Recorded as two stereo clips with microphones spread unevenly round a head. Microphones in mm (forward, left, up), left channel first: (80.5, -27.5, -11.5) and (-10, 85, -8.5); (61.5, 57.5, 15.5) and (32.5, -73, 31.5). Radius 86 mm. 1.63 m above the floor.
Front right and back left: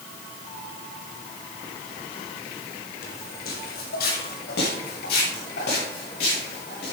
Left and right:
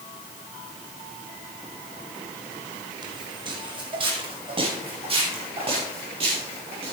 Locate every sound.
3.0 s footsteps: 50° right, 5 m; by 6.9 s 60° right, 10 m